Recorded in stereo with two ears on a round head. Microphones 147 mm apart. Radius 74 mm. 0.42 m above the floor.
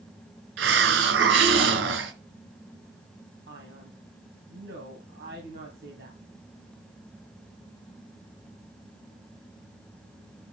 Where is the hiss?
80° right, 1.5 m.